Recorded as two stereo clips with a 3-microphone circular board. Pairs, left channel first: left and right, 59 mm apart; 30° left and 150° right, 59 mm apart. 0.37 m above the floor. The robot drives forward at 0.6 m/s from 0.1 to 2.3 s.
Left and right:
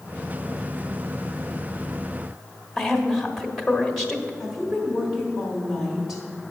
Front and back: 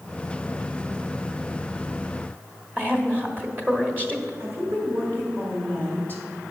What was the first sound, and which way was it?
A woman speaking, 170° left.